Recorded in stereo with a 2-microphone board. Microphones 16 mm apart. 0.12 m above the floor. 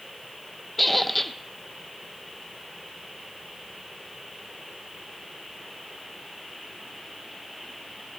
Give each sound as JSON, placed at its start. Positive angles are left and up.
{"t": 0.8, "sound": "a squeak", "side_deg": 10, "distance_m": 0.6}